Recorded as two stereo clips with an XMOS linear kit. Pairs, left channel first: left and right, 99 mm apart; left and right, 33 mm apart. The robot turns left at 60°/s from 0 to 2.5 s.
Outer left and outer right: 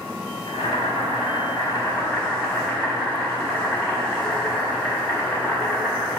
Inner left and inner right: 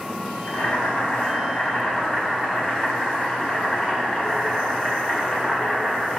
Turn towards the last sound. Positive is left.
turn(degrees=-10)